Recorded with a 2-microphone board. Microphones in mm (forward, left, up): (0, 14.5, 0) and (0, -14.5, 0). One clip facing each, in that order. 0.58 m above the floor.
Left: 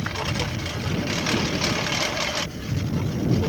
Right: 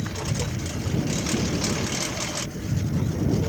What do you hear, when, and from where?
0.0 s a lawn mower: 30° left (ahead or behind); by 3.5 s 25° left (ahead or behind)